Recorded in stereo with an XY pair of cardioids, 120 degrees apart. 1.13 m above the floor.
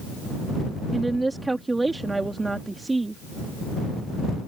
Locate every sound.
0.9 s a woman speaking: 15° right